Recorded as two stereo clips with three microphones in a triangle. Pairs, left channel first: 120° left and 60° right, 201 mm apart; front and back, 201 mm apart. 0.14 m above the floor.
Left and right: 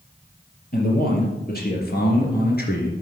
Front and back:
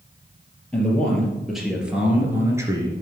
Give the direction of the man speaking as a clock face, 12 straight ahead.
9 o'clock.